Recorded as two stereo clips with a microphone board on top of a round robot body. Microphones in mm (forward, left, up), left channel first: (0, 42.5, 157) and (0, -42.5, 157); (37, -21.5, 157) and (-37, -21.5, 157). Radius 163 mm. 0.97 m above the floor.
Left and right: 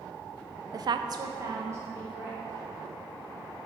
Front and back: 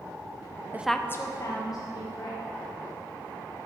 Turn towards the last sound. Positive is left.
turn(degrees=-25)